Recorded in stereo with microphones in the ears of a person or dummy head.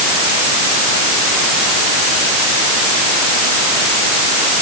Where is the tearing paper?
No tearing paper in this recording.